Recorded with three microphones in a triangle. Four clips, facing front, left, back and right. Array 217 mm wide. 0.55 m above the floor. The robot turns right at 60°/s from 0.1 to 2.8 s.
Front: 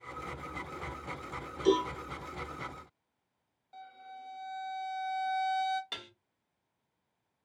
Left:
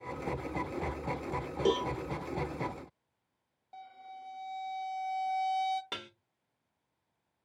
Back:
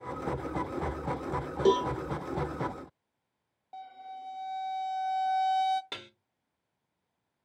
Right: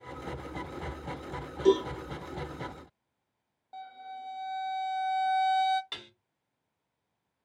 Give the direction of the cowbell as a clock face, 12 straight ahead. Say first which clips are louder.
Right 6 dB, back 2 dB; 7 o'clock.